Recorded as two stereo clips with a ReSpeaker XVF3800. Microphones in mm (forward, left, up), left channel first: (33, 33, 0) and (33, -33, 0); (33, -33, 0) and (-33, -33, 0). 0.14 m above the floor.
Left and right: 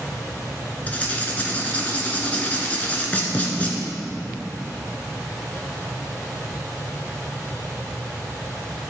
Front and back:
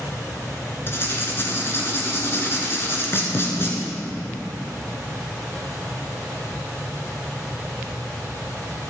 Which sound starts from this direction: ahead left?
Writing, at 0.9 s.